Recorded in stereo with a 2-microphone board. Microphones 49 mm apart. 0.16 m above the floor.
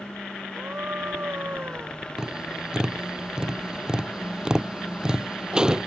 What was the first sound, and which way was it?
A scream, 40° right (ahead or behind).